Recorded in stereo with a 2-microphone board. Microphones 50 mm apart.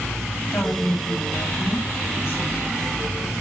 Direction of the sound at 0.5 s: 50° left (ahead or behind).